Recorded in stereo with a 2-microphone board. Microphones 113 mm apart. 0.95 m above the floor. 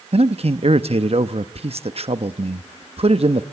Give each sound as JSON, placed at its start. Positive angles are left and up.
{"t": 0.1, "sound": "a man speaking", "side_deg": -60, "distance_m": 1.0}